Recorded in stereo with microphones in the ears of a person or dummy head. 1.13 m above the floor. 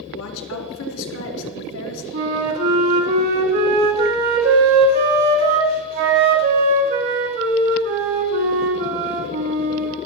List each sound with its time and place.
0.1 s a woman speaking: 70° left (ahead or behind), 2.5 m
2.1 s a flute: 40° right (ahead or behind), 2.5 m